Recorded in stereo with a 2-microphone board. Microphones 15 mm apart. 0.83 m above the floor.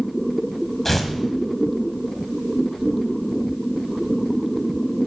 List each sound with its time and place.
0.8 s tearing paper: 20° left (ahead or behind), 1.0 m